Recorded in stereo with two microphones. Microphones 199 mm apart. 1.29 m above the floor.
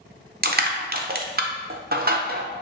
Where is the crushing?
50° right (ahead or behind), 0.5 m.